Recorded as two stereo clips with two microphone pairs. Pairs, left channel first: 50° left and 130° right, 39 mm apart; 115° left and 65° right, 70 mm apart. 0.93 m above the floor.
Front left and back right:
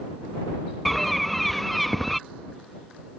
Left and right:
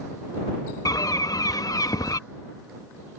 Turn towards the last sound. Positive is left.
turn(degrees=140)